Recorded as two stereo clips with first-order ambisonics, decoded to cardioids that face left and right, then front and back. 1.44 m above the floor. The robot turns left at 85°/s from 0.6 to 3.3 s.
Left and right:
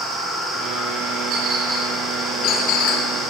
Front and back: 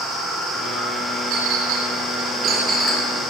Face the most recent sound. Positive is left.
turn(degrees=50)